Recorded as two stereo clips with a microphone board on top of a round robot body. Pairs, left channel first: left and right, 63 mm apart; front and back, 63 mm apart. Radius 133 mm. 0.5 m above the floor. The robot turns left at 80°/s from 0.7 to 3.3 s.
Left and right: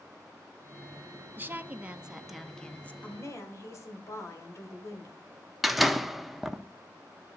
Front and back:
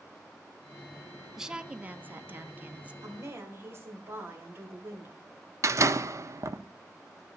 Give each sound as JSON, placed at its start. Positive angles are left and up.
{"t": 1.4, "sound": "a woman speaking", "azimuth_deg": -100, "distance_m": 0.8}
{"t": 3.0, "sound": "a woman speaking", "azimuth_deg": 155, "distance_m": 2.5}
{"t": 5.6, "sound": "a door slam", "azimuth_deg": -175, "distance_m": 0.8}